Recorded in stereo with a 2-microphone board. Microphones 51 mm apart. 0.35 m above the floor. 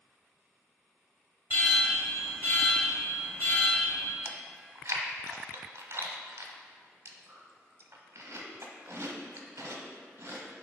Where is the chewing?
65° right (ahead or behind), 0.9 m.